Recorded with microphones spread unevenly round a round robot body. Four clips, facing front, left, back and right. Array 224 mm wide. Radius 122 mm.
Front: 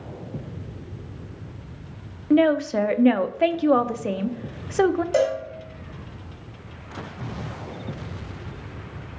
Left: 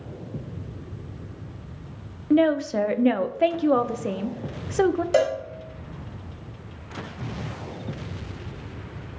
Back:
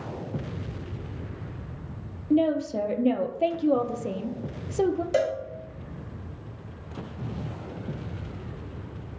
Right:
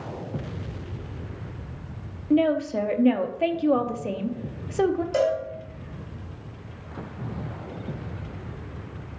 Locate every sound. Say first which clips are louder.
2.3 s a woman speaking: left 2 dB, front 5 dB; 5° right, 0.6 m
5.1 s a cowbell: left 2 dB, front 3 dB; 80° left, 1.3 m